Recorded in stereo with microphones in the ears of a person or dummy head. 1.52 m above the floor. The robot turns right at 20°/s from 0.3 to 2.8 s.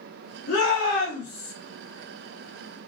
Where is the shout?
85° left, 4 m; by 1.5 s 65° left (ahead or behind), 4 m.